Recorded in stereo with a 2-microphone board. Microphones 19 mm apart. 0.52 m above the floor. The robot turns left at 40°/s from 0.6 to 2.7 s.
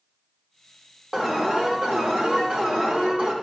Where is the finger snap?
No finger snap in this recording.